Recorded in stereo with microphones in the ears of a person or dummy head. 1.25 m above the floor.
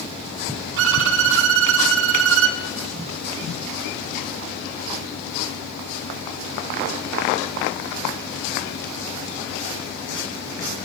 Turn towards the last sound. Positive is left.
turn(degrees=-70)  # may be behind; listen again after turning